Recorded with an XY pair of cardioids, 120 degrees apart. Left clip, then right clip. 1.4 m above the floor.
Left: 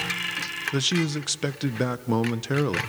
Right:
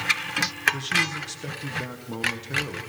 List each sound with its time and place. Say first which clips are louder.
0.7 s a man speaking: right 1 dB; 55° left, 0.9 m